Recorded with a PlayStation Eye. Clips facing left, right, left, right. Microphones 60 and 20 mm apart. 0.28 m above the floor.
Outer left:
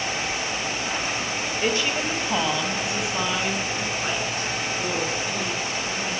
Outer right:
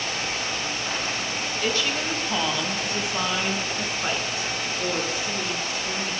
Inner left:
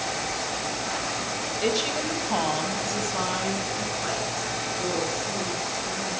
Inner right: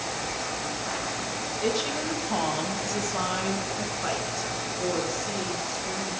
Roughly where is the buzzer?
No buzzer in this recording.